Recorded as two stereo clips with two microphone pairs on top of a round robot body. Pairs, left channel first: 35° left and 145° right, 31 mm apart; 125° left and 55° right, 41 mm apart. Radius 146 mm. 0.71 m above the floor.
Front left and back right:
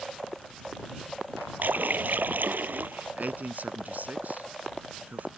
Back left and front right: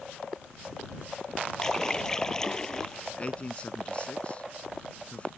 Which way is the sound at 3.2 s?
165° right.